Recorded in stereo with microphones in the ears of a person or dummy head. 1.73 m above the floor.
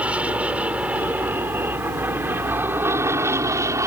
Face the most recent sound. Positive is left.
turn(degrees=-15)  # may be behind; listen again after turning